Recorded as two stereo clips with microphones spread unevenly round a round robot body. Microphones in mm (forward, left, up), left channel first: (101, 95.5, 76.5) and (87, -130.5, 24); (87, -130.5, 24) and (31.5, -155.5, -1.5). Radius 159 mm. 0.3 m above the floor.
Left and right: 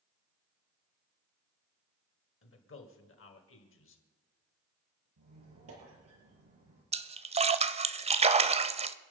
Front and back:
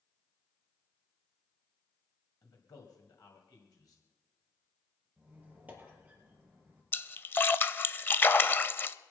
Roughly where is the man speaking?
Left.